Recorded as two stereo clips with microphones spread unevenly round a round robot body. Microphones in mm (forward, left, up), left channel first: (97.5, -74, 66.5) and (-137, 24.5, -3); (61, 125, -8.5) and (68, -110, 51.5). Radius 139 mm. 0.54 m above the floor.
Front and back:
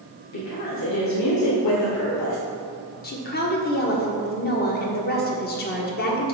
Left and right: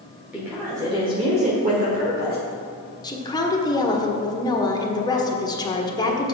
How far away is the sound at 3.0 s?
About 1.3 m.